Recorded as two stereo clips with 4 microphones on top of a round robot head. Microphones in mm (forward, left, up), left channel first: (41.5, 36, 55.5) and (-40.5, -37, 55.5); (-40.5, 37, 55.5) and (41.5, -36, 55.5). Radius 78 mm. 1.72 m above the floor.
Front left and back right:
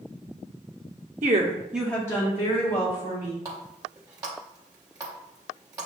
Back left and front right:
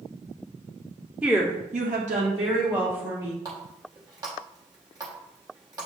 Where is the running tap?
90° right, 0.8 m.